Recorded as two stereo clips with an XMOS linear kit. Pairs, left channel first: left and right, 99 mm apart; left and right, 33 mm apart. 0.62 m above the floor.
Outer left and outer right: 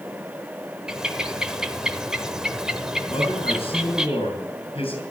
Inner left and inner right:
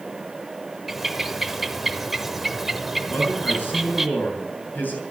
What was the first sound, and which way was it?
A bird, 5° right (ahead or behind).